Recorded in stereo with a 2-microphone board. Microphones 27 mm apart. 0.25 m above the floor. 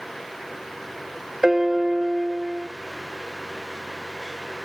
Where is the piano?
20° right (ahead or behind), 0.7 m.